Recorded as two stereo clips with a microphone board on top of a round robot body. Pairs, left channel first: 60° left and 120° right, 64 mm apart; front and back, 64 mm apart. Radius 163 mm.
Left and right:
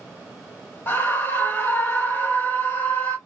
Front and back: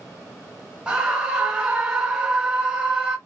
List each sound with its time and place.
0.9 s a scream: 110° left, 1.2 m